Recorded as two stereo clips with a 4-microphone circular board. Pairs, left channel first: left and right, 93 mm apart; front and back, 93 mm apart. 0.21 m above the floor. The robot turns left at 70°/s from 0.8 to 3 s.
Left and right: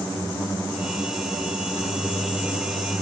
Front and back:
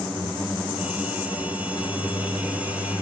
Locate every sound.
1.6 s a microwave: 20° right, 9 m; by 3.0 s 120° right, 9 m